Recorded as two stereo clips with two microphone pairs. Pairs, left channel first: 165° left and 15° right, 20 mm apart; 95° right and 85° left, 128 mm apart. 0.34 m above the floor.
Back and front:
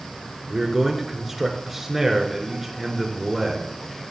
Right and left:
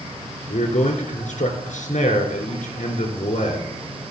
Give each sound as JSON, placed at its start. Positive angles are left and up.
{"t": 0.5, "sound": "a man speaking", "azimuth_deg": -90, "distance_m": 4.0}